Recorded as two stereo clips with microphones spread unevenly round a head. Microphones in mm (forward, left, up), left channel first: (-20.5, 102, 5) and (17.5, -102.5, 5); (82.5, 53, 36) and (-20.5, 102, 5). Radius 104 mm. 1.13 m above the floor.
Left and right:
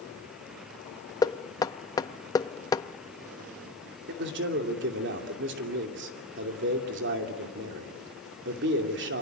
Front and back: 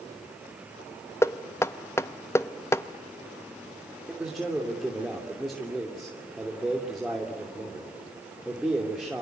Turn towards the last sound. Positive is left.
turn(degrees=-115)